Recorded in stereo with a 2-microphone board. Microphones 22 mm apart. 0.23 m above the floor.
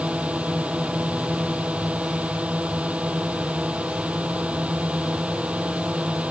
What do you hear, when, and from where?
0.0 s a drone: 75° right (ahead or behind)